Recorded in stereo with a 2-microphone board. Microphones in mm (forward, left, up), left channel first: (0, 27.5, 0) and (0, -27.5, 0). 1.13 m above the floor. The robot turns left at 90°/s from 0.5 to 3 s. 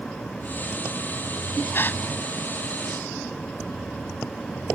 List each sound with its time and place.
1.7 s a gasp: 45° left (ahead or behind); by 2.0 s 25° left (ahead or behind)